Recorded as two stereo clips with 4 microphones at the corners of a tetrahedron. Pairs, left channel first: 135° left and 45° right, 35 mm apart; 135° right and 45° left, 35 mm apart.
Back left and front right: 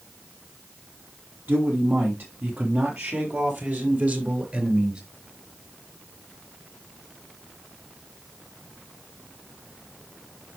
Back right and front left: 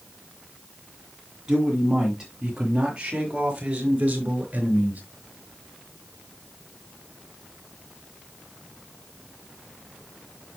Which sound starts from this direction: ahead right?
A man speaking, at 1.5 s.